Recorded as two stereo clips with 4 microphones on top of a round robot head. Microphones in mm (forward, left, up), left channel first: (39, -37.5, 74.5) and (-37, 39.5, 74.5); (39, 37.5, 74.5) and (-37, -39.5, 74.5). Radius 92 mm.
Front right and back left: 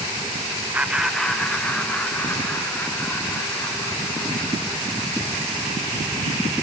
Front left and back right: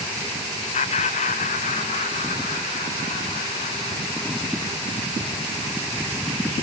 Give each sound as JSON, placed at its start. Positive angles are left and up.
{"t": 0.7, "sound": "laughter", "azimuth_deg": 60, "distance_m": 0.7}